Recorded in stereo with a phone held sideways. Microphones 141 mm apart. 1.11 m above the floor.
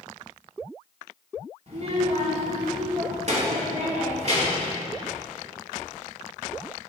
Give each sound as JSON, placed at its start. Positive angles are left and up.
{"t": 1.7, "sound": "a child speaking", "side_deg": -50, "distance_m": 2.5}